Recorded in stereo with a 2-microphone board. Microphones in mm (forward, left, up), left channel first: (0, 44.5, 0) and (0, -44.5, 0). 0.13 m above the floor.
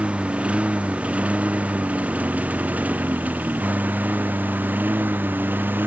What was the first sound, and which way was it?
A lawn mower, 15° right (ahead or behind).